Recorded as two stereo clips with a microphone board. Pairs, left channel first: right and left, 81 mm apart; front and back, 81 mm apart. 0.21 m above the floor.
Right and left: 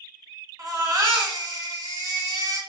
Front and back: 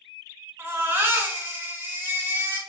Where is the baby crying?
115° left, 1.3 m.